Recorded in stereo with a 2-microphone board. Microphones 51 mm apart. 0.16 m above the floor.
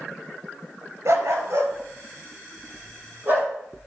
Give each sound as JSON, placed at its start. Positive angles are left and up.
{"t": 1.1, "sound": "a dog barking", "side_deg": -65, "distance_m": 1.3}